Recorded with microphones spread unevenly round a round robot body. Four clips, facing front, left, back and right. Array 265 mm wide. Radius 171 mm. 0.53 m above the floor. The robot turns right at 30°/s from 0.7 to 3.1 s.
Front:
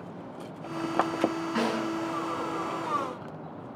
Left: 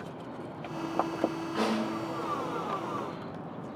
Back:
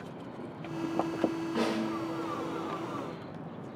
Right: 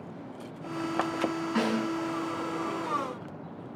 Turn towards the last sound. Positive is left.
turn(degrees=-40)